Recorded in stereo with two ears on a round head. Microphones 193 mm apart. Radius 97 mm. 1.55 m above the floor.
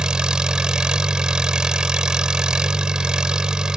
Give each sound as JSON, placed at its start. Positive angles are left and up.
{"t": 0.0, "sound": "an engine running", "side_deg": -5}